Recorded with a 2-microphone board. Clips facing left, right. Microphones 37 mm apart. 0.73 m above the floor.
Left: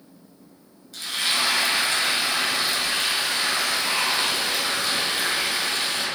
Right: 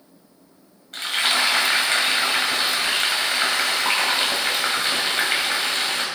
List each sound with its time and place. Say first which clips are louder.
0.9 s frying: right 4 dB; 55° right (ahead or behind), 3 m